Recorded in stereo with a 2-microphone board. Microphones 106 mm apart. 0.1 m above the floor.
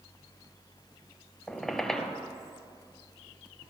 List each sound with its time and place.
1.5 s a squeak: 5° left (ahead or behind), 0.8 m